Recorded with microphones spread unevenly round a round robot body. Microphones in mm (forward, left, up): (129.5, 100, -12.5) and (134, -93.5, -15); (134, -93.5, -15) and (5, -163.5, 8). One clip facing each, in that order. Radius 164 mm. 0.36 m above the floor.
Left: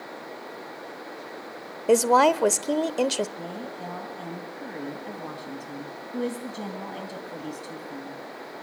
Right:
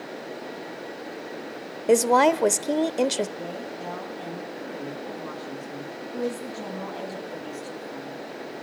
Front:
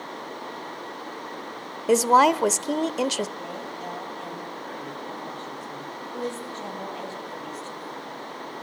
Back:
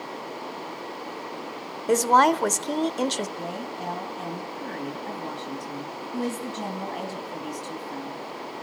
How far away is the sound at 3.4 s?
About 3 m.